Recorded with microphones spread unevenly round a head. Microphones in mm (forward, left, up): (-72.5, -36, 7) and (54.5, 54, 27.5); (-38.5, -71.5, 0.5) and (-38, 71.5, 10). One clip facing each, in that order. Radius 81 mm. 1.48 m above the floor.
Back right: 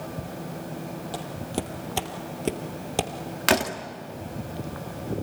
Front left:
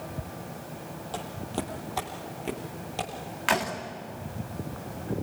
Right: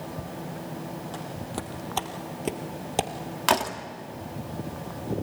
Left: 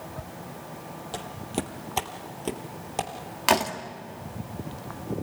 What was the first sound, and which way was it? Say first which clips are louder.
Footsteps: back right 1 dB, left 2 dB; 135° left.